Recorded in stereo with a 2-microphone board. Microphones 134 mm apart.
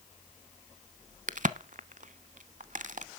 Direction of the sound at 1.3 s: 70° right (ahead or behind).